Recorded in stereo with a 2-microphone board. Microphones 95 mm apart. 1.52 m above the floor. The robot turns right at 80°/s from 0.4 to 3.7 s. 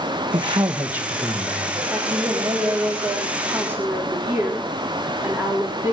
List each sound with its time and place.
0.3 s a man speaking: 60° right, 2 m; by 1.8 s 50° left, 2 m
1.9 s a woman speaking: 170° right, 3.5 m; by 5.9 s 25° right, 3.5 m